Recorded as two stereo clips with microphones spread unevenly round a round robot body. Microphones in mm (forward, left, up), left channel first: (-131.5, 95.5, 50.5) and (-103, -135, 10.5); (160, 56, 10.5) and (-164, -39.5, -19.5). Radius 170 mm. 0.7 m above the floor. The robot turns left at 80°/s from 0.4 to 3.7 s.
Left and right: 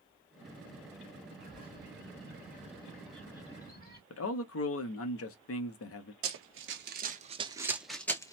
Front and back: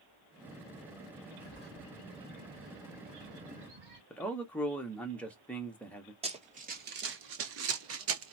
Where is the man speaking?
105° left, 0.7 m.